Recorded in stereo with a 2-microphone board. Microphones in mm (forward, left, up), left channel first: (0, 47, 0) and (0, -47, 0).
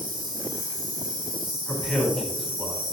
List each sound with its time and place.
0.0 s an insect: 60° right (ahead or behind), 4 m
1.7 s a man speaking: centre (ahead or behind), 3.5 m